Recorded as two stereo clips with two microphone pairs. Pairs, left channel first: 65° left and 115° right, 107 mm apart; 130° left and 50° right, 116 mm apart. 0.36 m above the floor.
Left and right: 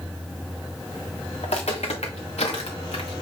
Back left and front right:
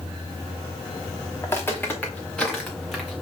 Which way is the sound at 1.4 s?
65° left.